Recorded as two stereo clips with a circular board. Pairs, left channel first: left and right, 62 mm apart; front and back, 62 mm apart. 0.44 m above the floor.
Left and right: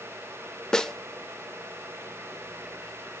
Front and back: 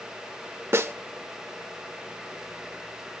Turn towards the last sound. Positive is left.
turn(degrees=165)